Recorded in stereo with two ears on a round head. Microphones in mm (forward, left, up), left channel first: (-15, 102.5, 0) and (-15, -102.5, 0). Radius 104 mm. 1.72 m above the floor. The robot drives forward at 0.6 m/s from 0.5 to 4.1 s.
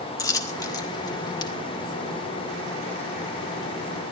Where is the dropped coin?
15° left (ahead or behind), 1.5 m; by 1.5 s 20° left (ahead or behind), 1.2 m.